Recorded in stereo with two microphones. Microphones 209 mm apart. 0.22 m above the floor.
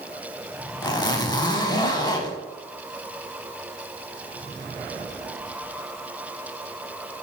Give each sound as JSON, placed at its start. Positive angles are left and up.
{"t": 0.8, "sound": "a zipper", "side_deg": 20, "distance_m": 0.5}